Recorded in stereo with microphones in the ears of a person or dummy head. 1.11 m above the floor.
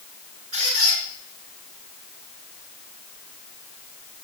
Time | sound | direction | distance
0.5 | a squeak | 50° right (ahead or behind) | 5.5 m